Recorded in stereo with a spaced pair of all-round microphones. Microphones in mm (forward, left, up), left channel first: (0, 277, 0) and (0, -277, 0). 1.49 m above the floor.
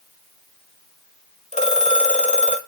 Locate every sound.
1.5 s a phone ringing: 10° left (ahead or behind), 1.6 m